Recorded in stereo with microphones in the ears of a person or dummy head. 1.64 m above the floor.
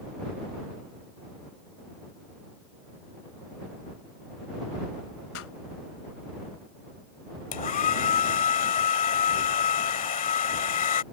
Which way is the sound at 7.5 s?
35° left (ahead or behind).